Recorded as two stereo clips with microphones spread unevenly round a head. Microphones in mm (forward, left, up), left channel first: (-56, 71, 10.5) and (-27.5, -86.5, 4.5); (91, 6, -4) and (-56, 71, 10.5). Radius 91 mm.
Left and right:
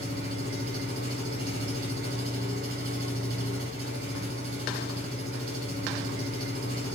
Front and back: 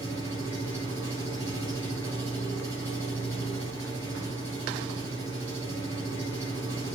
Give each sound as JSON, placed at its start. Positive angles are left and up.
{"t": 0.0, "sound": "an engine running", "azimuth_deg": -105, "distance_m": 5.0}